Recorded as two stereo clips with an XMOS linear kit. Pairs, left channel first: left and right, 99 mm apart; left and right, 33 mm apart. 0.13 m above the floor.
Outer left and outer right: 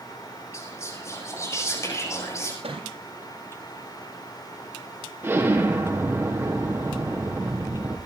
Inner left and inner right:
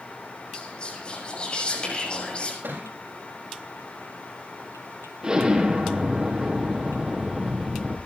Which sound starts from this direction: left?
Whispering, at 0.5 s.